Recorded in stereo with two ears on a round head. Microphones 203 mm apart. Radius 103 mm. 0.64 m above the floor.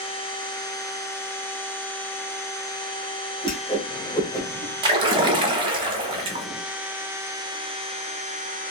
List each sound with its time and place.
3.4 s a whoosh: 20° left (ahead or behind), 0.9 m
4.8 s a splash: 20° right (ahead or behind), 0.6 m